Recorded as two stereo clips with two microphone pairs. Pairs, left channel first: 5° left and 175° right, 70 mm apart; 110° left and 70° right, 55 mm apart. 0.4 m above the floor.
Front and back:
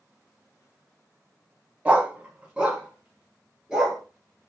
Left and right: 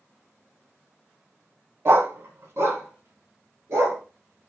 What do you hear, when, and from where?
1.9 s a dog barking: 110° right, 0.6 m; by 4.0 s 100° right, 2 m